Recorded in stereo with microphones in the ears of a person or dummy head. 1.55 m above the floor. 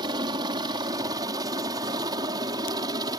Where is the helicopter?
20° right (ahead or behind).